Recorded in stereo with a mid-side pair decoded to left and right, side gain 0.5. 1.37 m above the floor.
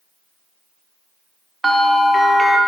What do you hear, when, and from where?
1.6 s a bell: 10° right, 1.3 m